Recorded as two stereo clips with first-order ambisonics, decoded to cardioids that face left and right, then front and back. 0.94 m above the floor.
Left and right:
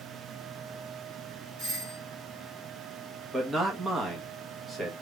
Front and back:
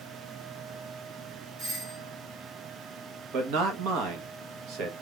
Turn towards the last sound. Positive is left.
turn(degrees=-165)